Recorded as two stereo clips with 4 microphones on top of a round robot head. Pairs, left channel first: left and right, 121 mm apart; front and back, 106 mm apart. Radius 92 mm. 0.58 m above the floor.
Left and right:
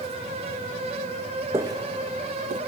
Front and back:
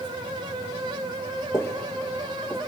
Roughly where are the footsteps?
Ahead right.